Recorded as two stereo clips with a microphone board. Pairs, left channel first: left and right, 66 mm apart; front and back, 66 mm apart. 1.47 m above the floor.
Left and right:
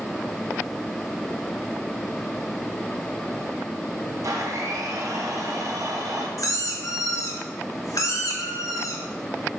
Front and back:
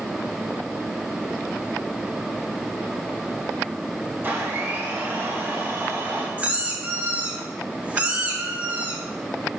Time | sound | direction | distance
4.2 | a blender | 120° right | 1.5 m
6.4 | a squeak | 115° left | 1.2 m